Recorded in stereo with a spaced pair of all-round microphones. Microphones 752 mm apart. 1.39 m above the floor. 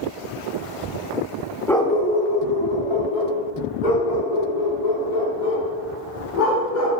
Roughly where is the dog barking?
Centre.